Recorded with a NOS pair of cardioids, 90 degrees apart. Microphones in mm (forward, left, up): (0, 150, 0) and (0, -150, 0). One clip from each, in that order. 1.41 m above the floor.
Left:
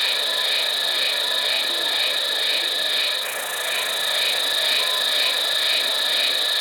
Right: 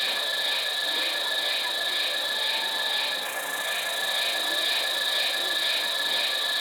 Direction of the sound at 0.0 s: 35° left.